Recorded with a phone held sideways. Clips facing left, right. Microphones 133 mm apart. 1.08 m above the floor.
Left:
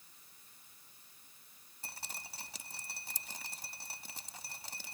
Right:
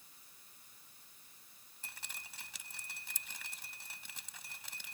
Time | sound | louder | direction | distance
1.8 | dripping | left 4 dB | 40° left (ahead or behind) | ?